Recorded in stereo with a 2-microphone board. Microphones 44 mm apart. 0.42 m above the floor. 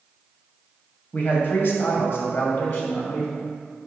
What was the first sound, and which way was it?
A man speaking, 40° left (ahead or behind).